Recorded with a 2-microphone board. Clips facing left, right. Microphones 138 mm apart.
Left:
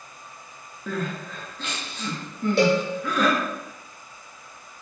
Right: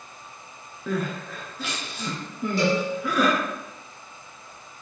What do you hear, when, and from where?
0.9 s crying: 5° right (ahead or behind), 0.9 m
2.6 s a cowbell: 75° left (ahead or behind), 0.8 m